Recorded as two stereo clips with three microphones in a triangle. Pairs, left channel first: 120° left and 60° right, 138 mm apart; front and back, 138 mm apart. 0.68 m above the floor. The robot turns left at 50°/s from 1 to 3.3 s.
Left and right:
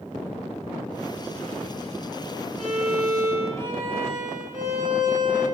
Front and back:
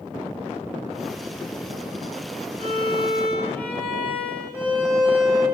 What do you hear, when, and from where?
2.6 s a violin: 40° right, 3 m; by 5.5 s 75° right, 3 m